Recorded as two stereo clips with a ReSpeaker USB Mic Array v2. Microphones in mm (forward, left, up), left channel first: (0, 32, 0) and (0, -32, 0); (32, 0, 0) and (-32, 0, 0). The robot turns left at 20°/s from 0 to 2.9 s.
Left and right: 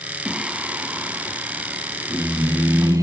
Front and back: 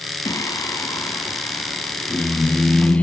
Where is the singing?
15° right, 1.2 m; by 3.0 s 65° right, 1.2 m.